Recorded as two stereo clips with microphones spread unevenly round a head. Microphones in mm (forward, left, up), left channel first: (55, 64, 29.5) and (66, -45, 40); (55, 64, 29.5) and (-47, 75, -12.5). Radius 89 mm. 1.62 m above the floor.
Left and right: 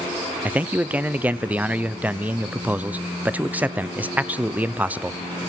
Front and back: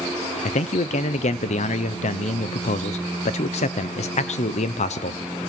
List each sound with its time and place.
0.5 s a man speaking: 5° right, 0.7 m